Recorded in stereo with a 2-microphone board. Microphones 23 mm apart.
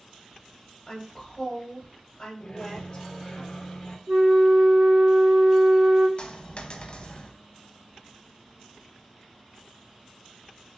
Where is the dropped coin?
40° left (ahead or behind), 0.5 m.